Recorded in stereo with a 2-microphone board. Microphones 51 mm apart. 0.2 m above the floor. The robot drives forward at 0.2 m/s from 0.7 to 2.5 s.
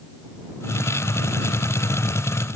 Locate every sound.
Only background noise.